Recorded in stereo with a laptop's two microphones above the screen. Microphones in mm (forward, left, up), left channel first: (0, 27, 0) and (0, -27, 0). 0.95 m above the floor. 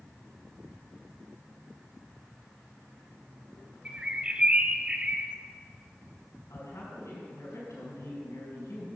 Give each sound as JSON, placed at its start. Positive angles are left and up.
{"t": 3.9, "sound": "a bird", "side_deg": -20, "distance_m": 0.6}
{"t": 6.5, "sound": "a woman speaking", "side_deg": 80, "distance_m": 4.5}